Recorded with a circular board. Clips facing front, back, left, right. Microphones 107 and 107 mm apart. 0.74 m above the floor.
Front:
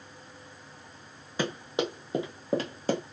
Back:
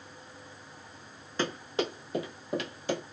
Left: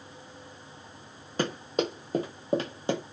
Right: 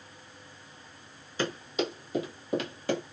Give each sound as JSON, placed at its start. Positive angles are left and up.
{"t": 1.4, "sound": "running footsteps", "azimuth_deg": 75, "distance_m": 1.4}